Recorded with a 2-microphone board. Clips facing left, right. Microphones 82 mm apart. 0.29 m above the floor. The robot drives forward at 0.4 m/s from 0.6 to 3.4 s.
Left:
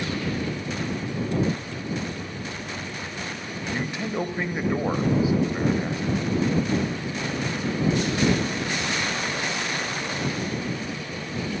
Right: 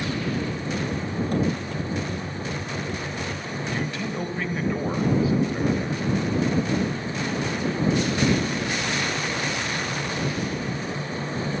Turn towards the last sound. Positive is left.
turn(degrees=20)  # may be behind; listen again after turning